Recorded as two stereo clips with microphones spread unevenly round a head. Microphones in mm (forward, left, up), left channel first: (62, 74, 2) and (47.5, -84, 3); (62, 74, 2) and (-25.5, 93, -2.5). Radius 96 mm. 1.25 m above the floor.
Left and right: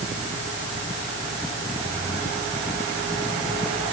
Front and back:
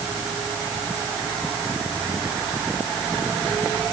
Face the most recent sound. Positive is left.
No sound to turn to.